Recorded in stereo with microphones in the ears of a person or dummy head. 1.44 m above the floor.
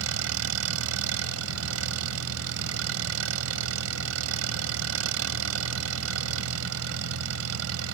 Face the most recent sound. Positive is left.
turn(degrees=-85)